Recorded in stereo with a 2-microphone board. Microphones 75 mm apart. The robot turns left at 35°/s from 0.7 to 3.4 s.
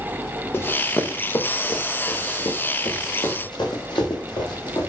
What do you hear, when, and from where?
0.5 s running footsteps: 30° left (ahead or behind), 1.0 m; by 4.9 s 85° left, 3.5 m